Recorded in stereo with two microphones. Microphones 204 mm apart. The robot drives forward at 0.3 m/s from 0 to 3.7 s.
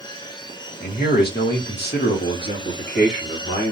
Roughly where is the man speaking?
Left.